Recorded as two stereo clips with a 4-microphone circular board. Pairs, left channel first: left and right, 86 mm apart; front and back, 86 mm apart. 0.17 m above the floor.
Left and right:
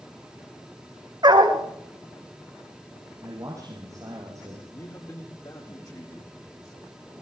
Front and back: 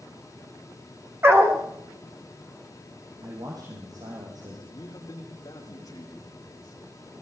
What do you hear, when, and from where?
1.2 s a dog barking: 120° right, 4.5 m
3.2 s a man speaking: 140° right, 6 m
4.7 s a man speaking: 50° left, 9 m